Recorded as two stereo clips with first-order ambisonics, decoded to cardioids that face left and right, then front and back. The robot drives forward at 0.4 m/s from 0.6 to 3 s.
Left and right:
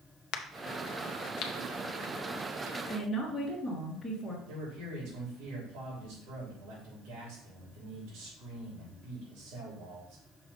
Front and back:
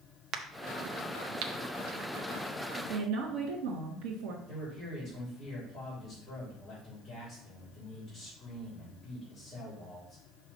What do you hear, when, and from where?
0.3 s a crack: 125° left, 0.6 m; by 1.5 s 150° left, 0.8 m
2.9 s a woman speaking: straight behind, 1.7 m
4.5 s a man speaking: 85° right, 3 m